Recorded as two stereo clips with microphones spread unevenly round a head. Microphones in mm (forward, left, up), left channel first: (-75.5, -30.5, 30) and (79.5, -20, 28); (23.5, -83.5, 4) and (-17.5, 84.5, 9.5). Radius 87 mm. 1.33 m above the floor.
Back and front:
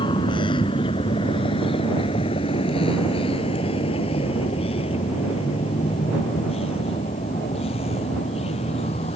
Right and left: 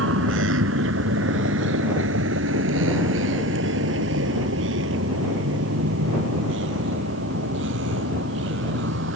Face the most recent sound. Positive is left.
turn(degrees=125)